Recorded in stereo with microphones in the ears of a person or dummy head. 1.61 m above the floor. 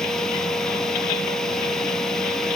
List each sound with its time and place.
0.0 s a fan: 10° left (ahead or behind)